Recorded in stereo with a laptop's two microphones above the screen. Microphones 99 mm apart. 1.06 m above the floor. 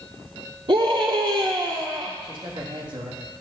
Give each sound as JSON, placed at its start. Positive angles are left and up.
{"t": 0.7, "sound": "a scream", "side_deg": -60, "distance_m": 1.9}
{"t": 2.2, "sound": "a man speaking", "side_deg": -50, "distance_m": 1.7}